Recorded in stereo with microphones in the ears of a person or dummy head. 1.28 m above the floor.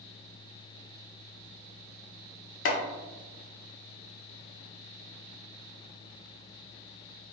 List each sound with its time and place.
2.6 s chopping: 45° left (ahead or behind), 0.7 m